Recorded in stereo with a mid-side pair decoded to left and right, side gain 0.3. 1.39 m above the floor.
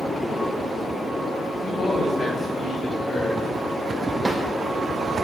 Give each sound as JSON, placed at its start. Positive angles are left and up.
{"t": 1.6, "sound": "a man speaking", "azimuth_deg": 50, "distance_m": 4.0}
{"t": 4.2, "sound": "a drawer", "azimuth_deg": -30, "distance_m": 3.0}